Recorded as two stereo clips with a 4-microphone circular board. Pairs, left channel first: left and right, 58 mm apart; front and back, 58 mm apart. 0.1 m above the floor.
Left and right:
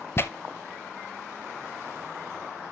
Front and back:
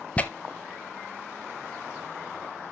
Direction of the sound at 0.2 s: 60° left.